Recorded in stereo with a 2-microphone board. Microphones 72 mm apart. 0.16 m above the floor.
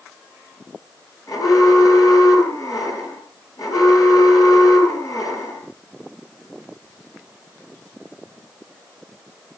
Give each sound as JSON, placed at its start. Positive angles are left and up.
{"t": 1.3, "sound": "an alarm", "side_deg": 55, "distance_m": 6.5}